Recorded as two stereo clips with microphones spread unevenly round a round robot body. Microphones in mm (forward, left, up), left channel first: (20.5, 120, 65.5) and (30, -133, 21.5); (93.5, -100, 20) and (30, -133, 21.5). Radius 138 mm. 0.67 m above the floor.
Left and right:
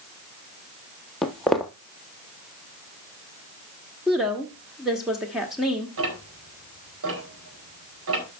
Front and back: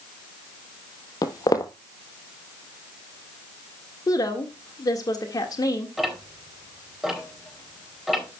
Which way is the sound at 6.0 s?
65° right.